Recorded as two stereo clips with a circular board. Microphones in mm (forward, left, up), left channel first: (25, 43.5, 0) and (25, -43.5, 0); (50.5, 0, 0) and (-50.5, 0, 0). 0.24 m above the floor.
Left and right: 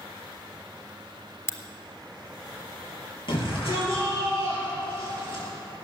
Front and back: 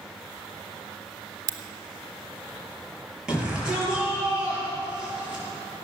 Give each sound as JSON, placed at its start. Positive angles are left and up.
{"t": 1.5, "sound": "a crack", "azimuth_deg": 140, "distance_m": 1.0}
{"t": 3.3, "sound": "a shout", "azimuth_deg": 100, "distance_m": 6.5}